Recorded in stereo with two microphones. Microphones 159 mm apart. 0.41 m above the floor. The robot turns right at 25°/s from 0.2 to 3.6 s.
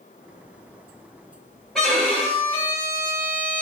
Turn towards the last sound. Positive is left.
turn(degrees=50)